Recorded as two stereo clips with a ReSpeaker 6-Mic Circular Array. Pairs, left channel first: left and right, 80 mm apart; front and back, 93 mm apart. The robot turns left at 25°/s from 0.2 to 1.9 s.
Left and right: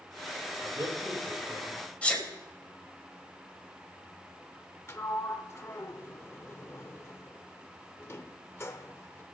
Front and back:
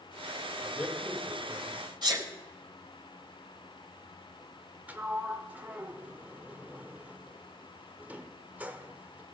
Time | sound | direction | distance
0.6 | a man speaking | 75° right | 2.0 m
2.0 | a sneeze | 160° left | 2.5 m
4.9 | a sliding door | 120° left | 0.6 m